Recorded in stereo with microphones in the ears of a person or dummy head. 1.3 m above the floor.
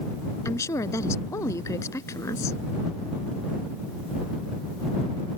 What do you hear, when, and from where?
0.5 s a woman speaking: 20° left (ahead or behind)